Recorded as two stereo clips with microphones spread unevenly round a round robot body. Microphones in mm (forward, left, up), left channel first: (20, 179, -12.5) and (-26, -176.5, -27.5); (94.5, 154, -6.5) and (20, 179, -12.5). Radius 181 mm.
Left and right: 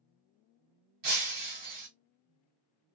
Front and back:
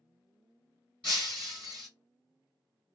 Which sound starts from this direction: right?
Breaking glass, at 1.0 s.